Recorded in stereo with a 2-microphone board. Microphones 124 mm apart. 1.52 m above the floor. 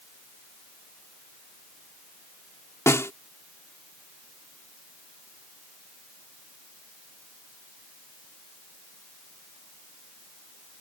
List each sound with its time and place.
2.9 s a snare drum: 20° left (ahead or behind)